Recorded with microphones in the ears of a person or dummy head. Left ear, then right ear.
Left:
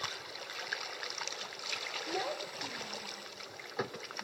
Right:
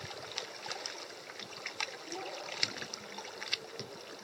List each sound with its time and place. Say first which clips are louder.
2.1 s a child speaking: left 4 dB; 45° left (ahead or behind), 0.5 m